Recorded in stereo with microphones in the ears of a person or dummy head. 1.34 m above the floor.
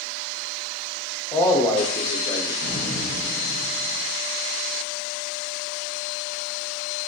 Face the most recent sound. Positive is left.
turn(degrees=45)  # may be behind; listen again after turning